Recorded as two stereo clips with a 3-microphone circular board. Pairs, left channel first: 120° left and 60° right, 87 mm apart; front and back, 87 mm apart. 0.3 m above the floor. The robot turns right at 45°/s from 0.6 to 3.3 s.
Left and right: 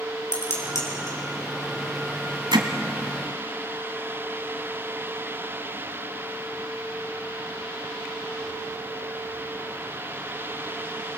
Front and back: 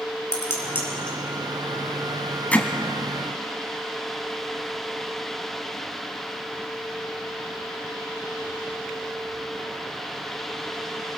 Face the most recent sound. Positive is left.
turn(degrees=-40)